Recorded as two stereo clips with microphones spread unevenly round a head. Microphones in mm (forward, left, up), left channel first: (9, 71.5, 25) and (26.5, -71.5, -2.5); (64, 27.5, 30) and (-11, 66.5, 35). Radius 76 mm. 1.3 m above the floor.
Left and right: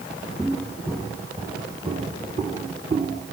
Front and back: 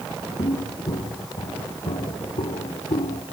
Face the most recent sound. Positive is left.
turn(degrees=-45)